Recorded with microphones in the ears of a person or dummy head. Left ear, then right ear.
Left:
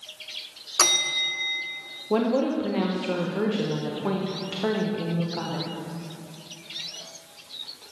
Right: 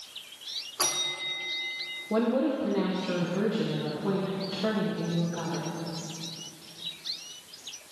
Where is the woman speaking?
35° left (ahead or behind), 1.1 m.